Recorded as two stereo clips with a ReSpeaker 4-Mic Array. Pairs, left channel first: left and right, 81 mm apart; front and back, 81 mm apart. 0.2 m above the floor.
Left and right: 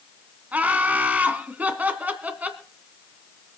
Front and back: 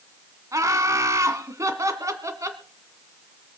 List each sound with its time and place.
0.5 s laughter: 150° right, 1.8 m